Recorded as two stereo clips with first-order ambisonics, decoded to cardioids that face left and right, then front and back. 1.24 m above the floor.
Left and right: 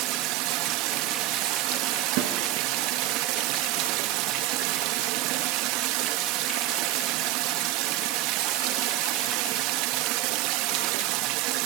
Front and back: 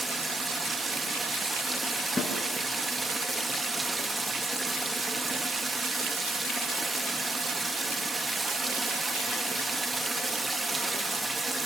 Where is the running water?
100° right, 0.9 m.